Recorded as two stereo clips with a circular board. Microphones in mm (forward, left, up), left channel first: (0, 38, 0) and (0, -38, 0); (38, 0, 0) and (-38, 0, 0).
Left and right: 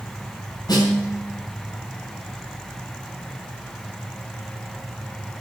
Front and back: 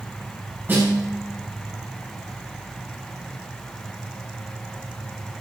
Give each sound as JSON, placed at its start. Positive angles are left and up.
{"t": 0.7, "sound": "a snare drum", "azimuth_deg": 120, "distance_m": 7.5}